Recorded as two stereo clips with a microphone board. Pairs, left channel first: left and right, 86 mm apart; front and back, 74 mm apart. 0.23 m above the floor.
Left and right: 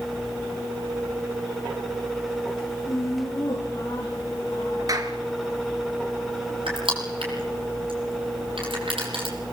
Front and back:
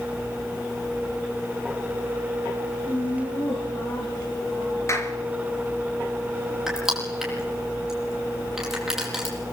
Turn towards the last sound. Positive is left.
turn(degrees=-95)